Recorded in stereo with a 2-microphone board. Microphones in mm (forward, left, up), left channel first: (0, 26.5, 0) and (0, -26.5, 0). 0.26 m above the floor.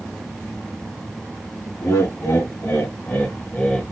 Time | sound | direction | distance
1.8 | laughter | 70° left (ahead or behind) | 2.5 m